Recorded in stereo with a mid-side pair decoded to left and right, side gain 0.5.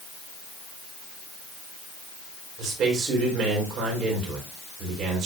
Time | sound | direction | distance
2.6 | a man speaking | 65° right | 5 m